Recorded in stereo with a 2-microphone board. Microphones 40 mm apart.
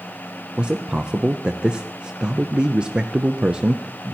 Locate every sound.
0.6 s a man speaking: 20° right (ahead or behind), 0.6 m